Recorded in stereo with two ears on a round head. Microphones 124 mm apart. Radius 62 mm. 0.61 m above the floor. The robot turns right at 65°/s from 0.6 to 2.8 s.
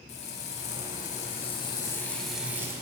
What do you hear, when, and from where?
0.1 s frying: 70° left, 0.6 m; by 2.8 s 150° right, 0.6 m